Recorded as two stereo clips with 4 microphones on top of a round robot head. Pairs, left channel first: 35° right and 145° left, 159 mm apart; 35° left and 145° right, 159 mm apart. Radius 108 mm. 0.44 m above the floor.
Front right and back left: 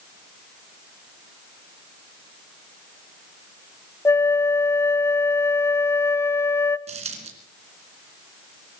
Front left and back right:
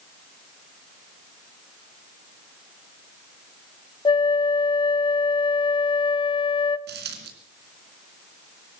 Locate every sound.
4.0 s a flute: 20° left, 0.9 m
6.9 s a dropped coin: 165° right, 3 m